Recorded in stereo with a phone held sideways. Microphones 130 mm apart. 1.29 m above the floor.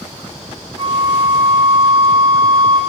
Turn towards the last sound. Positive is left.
turn(degrees=-45)  # may be behind; listen again after turning